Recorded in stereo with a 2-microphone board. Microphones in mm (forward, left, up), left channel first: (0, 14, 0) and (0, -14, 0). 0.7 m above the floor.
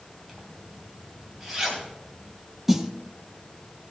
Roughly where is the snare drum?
Centre.